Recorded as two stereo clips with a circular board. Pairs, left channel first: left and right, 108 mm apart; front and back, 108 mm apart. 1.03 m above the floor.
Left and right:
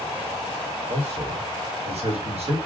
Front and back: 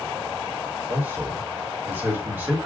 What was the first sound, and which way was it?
A man speaking, 110° right.